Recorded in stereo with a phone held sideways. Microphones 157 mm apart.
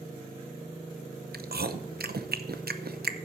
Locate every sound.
1.3 s chewing: 85° right, 0.7 m